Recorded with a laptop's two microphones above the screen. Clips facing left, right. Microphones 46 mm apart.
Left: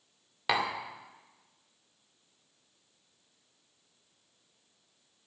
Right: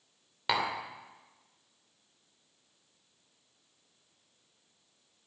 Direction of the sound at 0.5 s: Centre (ahead or behind).